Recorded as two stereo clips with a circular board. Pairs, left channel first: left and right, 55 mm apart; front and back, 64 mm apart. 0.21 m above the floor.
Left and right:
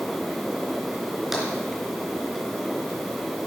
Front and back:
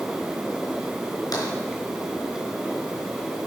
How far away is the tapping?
About 3.5 m.